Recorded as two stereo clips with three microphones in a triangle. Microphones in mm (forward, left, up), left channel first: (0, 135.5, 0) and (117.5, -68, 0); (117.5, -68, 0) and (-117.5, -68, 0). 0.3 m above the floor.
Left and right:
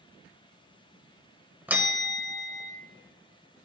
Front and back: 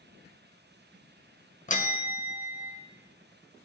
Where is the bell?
20° left, 0.5 m.